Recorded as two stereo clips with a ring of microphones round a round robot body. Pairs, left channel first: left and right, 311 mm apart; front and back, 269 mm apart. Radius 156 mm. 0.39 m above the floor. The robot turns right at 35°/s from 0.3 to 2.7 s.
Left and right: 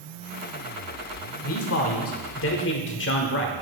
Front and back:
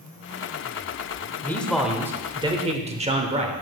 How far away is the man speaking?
About 1.0 m.